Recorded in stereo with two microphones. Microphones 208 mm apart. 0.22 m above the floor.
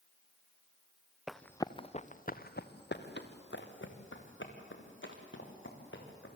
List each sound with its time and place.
1.3 s running footsteps: 5° right (ahead or behind), 1.2 m; by 6.3 s 80° left, 6.5 m